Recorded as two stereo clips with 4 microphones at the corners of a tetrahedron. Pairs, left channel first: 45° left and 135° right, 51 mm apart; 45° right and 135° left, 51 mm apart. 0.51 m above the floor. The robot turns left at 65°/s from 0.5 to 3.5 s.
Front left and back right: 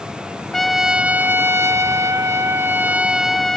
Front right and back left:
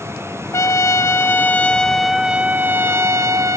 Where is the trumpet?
35° right, 0.8 m; by 3.6 s 130° left, 0.8 m.